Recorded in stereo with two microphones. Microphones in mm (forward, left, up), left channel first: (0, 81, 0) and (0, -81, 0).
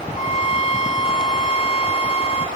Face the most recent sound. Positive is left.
turn(degrees=40)  # may be behind; listen again after turning